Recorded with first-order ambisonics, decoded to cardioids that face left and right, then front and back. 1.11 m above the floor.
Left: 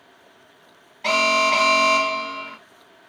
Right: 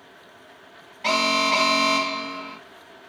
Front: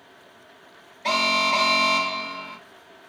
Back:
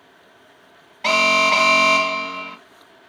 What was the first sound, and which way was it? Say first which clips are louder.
An alarm: left 3 dB, back 5 dB; 175° left.